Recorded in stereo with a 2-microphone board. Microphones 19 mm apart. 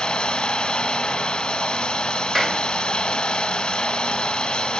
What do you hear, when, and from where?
0.0 s running water: 60° left (ahead or behind), 1.2 m
2.4 s a clap: 10° right (ahead or behind), 1.2 m